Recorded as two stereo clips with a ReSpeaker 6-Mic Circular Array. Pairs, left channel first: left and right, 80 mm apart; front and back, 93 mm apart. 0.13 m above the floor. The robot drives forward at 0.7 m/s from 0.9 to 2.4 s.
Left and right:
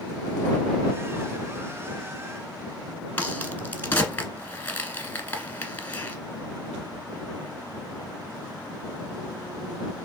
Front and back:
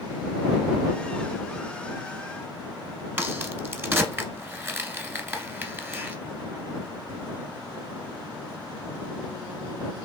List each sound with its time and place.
3.2 s a crack: 135° left, 0.8 m